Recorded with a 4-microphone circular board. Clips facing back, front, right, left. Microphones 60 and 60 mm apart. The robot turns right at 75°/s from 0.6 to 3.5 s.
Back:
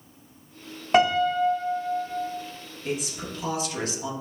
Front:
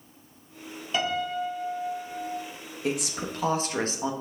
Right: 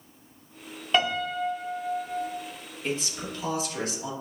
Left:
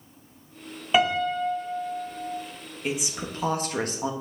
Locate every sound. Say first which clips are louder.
0.9 s a piano: back 8 dB, left 3 dB; 165° left, 1.1 m; by 2.3 s 90° right, 1.1 m
2.8 s a woman speaking: front 2 dB, left 1 dB; straight ahead, 1.3 m; by 4.1 s 50° left, 1.3 m